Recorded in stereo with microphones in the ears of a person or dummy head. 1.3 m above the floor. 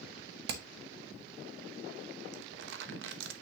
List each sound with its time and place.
0.5 s hammering: 55° right (ahead or behind), 0.9 m
2.3 s crumpling: 75° right (ahead or behind), 1.0 m